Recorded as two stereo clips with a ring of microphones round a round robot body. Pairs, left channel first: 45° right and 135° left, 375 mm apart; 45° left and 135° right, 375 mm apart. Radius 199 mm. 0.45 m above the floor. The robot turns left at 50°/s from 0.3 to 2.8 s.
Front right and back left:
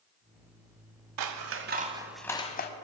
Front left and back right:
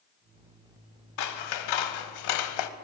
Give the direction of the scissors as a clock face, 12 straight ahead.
9 o'clock.